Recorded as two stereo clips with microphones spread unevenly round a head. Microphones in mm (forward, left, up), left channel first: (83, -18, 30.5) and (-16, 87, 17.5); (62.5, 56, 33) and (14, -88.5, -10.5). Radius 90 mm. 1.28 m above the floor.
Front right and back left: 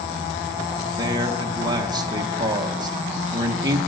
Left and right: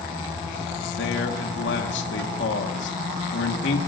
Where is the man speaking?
70° left, 1.5 m.